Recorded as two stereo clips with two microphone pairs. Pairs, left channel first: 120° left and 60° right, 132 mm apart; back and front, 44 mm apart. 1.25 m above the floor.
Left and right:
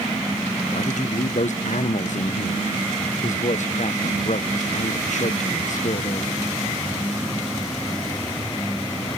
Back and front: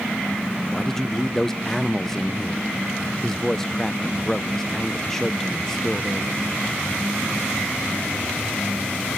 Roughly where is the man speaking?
Left.